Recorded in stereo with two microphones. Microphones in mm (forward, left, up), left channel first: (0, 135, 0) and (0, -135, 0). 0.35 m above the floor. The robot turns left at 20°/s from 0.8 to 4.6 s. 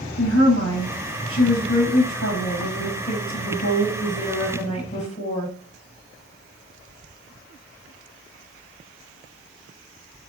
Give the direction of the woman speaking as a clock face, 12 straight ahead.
9 o'clock.